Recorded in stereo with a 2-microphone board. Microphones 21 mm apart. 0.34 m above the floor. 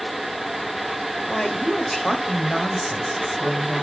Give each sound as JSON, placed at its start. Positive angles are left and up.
{"t": 1.3, "sound": "a woman speaking", "side_deg": 25, "distance_m": 1.3}